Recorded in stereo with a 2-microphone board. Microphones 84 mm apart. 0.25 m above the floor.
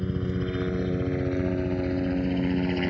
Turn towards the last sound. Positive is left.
turn(degrees=0)  # may be behind; listen again after turning